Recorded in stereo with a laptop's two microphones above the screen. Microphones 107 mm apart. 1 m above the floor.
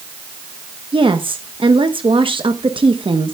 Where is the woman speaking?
60° right (ahead or behind), 0.9 m.